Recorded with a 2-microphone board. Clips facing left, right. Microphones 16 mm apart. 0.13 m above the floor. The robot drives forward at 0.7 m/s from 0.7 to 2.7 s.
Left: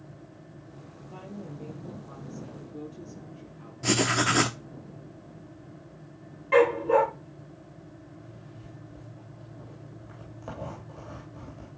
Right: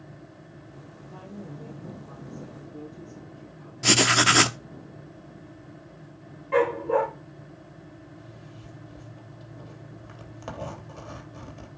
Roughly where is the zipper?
Right.